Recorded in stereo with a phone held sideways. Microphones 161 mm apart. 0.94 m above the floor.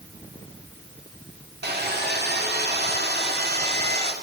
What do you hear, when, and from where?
1.6 s sawing: 75° right (ahead or behind), 2 m